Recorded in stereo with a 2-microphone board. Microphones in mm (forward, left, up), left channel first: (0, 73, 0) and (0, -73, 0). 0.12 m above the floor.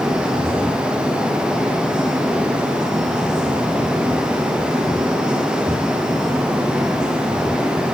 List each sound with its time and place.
Only background noise.